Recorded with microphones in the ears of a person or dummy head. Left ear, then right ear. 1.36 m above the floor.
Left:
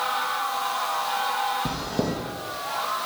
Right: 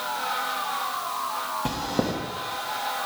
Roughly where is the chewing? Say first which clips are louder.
Right 1 dB; right.